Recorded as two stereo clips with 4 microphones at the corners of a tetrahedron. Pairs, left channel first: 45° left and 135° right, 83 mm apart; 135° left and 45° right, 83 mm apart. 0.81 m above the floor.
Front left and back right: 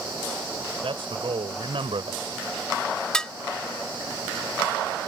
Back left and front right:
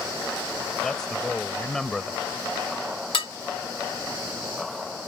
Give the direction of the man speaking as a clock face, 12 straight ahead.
5 o'clock.